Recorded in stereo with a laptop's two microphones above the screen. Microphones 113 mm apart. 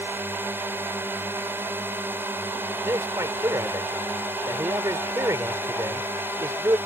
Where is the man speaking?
30° right (ahead or behind).